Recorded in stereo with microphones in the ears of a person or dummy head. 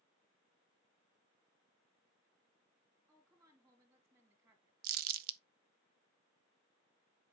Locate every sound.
3.1 s a woman speaking: 20° right (ahead or behind), 3 m
4.8 s crumpling: 55° right (ahead or behind), 0.8 m